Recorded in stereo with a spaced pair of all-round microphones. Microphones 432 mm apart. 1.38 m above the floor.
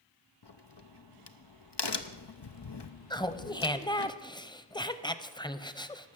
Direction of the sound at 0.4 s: 70° left (ahead or behind).